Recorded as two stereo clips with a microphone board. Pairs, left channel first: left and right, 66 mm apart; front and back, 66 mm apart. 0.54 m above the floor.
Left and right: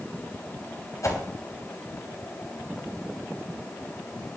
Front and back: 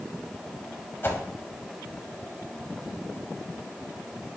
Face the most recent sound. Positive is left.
turn(degrees=55)